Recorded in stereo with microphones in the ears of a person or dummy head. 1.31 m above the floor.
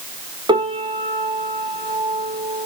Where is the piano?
15° right (ahead or behind), 1.3 m.